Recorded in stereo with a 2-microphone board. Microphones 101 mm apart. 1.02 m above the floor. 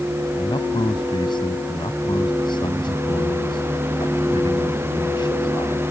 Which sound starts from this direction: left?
A man speaking, at 0.4 s.